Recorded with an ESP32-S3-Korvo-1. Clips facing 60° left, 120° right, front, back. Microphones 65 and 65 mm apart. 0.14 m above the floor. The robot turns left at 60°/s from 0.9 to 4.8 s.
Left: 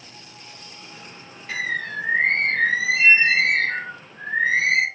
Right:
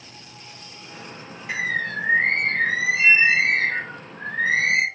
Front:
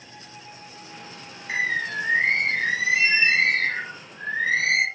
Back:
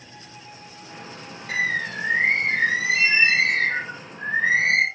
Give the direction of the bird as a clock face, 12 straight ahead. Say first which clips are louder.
Right 1 dB, even; 7 o'clock.